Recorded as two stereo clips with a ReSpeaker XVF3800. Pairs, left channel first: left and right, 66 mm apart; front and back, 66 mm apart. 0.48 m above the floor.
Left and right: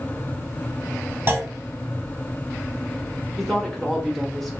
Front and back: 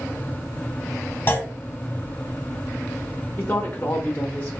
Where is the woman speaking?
Straight ahead, 0.8 m.